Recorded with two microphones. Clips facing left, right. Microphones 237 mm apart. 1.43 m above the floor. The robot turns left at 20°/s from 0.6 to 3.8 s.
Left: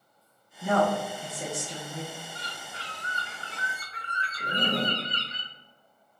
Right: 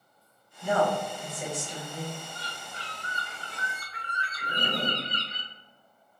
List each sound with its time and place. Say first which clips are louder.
0.6 s a woman speaking: left 1 dB; 70° left, 1.5 m; by 2.1 s 40° left, 1.5 m
2.4 s a bird: even; 35° left (ahead or behind), 0.8 m; by 5.4 s 30° left (ahead or behind), 0.8 m
4.4 s a zipper: left 3 dB; 60° left (ahead or behind), 0.5 m